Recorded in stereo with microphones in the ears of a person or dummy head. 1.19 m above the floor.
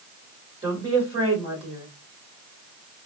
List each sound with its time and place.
0.6 s a woman speaking: 30° right (ahead or behind), 2.5 m